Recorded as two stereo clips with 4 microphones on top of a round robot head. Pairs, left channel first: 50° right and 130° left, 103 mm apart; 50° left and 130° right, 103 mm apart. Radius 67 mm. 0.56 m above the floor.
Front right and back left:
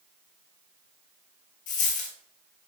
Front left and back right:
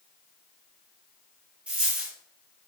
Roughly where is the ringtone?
No ringtone in this recording.